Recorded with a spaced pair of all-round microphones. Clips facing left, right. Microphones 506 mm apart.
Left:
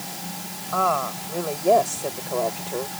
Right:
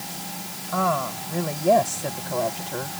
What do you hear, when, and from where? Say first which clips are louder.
0.7 s a woman speaking: even; 40° right (ahead or behind); by 3.0 s 35° right (ahead or behind)